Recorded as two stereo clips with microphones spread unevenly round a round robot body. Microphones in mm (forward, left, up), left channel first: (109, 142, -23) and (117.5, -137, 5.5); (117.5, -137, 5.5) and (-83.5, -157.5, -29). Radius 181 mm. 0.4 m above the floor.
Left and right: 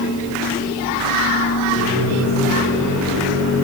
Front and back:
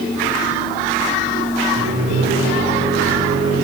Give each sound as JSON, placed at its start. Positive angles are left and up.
{"t": 1.8, "sound": "a microwave", "azimuth_deg": 140, "distance_m": 7.5}